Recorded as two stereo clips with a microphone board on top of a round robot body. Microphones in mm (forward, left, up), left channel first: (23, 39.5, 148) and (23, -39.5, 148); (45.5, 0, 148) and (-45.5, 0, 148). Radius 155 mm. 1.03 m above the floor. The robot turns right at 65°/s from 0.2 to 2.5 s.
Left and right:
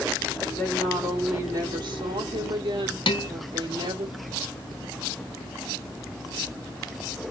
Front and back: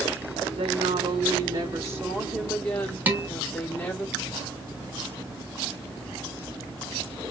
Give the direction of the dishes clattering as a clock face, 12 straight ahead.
8 o'clock.